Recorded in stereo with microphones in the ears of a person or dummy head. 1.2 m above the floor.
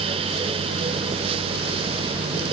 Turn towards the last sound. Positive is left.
No sound to turn to.